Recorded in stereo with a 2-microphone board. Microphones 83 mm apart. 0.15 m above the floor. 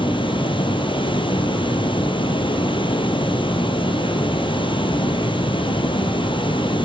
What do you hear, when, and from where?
0.0 s running water: 70° left (ahead or behind), 1.8 m